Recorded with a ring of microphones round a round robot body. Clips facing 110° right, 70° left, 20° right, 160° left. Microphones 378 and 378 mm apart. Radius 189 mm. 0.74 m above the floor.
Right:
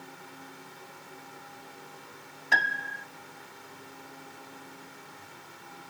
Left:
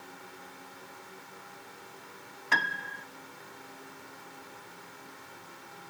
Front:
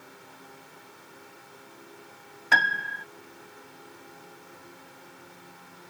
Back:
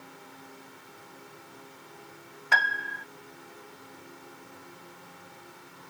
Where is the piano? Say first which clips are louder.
Right 1 dB, front 3 dB; 5° right.